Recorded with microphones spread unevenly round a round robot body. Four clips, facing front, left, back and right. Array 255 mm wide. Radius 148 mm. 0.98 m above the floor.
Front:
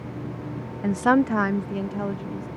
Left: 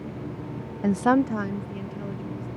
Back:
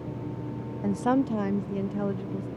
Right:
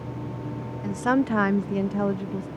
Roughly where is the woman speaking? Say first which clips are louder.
Left 2 dB, front 5 dB; ahead left.